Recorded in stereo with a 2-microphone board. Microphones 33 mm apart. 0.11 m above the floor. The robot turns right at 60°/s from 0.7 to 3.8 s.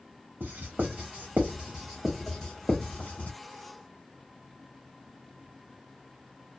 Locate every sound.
0.4 s writing: 80° right, 1.3 m; by 3.4 s 75° left (ahead or behind), 1.3 m